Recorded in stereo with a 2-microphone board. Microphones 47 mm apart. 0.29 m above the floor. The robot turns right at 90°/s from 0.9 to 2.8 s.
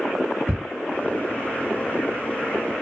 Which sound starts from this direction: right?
Ticking, at 0.5 s.